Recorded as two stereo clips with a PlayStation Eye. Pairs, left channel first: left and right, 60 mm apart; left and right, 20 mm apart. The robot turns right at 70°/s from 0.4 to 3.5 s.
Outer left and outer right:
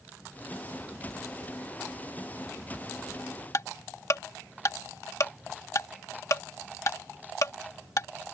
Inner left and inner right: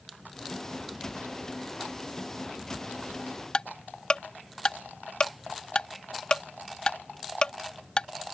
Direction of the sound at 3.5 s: 60° left (ahead or behind).